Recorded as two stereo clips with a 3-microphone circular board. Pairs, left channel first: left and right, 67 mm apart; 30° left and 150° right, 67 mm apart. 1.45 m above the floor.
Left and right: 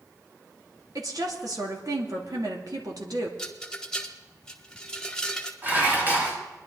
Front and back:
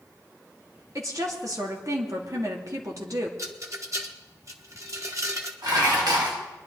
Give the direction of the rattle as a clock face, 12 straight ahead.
6 o'clock.